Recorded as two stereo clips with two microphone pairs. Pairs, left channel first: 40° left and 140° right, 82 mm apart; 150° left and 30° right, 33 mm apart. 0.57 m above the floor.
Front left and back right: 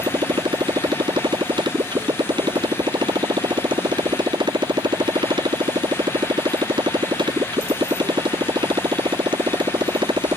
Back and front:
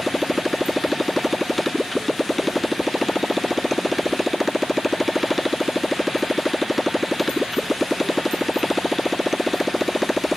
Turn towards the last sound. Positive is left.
turn(degrees=-125)